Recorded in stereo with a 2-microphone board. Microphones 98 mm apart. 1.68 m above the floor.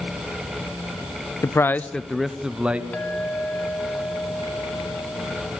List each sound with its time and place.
1.4 s a man speaking: 35° left (ahead or behind), 0.6 m; by 2.8 s 15° right (ahead or behind), 1.3 m
2.9 s a clink: 15° left (ahead or behind), 2.0 m